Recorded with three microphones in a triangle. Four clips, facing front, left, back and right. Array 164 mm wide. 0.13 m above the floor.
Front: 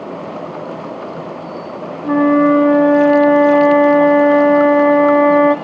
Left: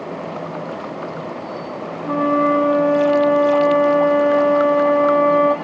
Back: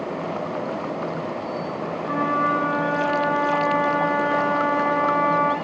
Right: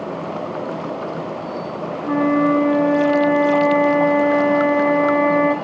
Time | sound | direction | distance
2.0 | a flute | 10° left | 3 m